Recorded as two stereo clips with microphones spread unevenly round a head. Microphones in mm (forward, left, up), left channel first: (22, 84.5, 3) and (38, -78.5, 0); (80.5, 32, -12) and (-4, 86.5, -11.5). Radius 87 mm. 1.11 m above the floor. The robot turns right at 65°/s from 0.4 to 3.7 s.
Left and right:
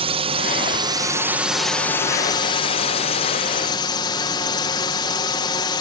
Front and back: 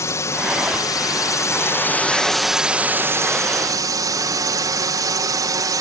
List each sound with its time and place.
0.0 s a drone: 75° right; by 5.8 s 140° left